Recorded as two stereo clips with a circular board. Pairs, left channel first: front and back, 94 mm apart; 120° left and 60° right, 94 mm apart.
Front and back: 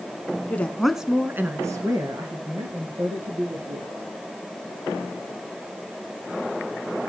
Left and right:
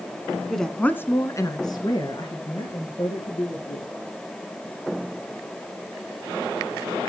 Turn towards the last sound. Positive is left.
turn(degrees=150)